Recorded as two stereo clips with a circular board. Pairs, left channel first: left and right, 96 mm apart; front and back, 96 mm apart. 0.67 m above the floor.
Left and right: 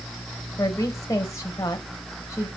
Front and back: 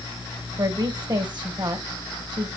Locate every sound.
0.6 s a woman speaking: 145° left, 3 m